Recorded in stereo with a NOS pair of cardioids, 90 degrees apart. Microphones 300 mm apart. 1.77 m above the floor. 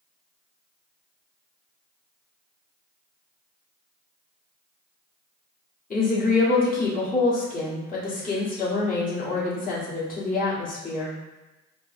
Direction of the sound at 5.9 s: 30° left.